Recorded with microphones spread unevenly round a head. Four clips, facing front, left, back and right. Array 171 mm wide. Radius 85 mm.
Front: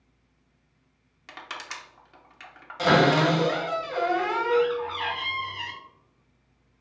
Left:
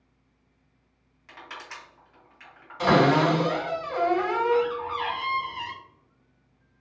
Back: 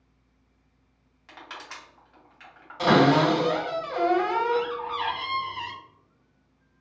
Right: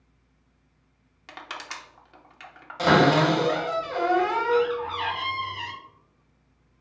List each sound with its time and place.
1.3 s crushing: 60° right, 0.7 m
2.8 s a cupboard door: 80° right, 1.7 m